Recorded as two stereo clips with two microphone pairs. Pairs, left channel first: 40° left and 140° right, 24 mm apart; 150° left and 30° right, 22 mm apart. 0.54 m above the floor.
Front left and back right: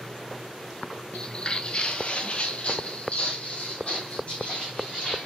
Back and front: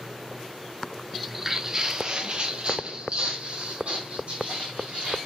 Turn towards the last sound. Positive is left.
turn(degrees=5)